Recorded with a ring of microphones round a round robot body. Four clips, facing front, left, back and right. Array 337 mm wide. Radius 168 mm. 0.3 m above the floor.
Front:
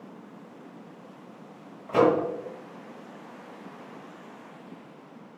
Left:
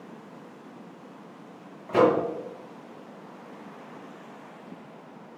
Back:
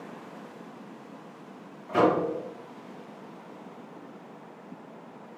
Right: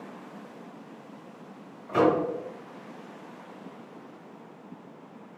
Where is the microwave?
40° left, 1.0 m.